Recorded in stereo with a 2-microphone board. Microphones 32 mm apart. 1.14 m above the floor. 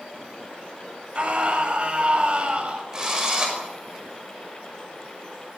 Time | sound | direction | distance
1.1 | a scream | 35° right (ahead or behind) | 6.5 m
2.9 | a drill | 20° right (ahead or behind) | 5.5 m